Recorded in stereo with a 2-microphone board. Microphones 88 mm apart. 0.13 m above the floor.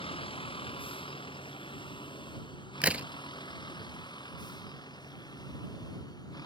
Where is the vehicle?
85° left; by 6.5 s 45° left (ahead or behind).